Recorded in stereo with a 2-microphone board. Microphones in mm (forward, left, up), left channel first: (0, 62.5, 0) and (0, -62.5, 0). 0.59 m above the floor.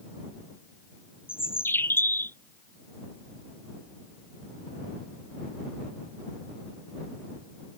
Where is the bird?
15° left (ahead or behind).